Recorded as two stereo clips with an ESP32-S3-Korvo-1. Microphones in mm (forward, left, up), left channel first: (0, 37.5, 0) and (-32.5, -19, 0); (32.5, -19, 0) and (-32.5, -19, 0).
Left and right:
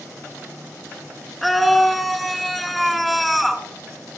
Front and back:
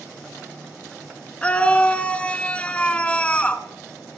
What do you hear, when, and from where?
1.4 s a scream: 30° right, 1.1 m